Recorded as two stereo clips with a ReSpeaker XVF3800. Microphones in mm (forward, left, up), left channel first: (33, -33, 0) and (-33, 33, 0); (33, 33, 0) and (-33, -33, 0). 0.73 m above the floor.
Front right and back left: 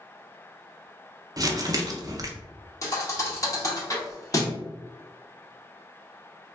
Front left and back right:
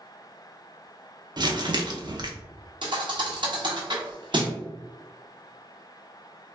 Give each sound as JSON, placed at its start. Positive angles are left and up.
{"t": 1.4, "sound": "crumpling", "azimuth_deg": -175, "distance_m": 0.5}
{"t": 2.8, "sound": "a thud", "azimuth_deg": -100, "distance_m": 0.8}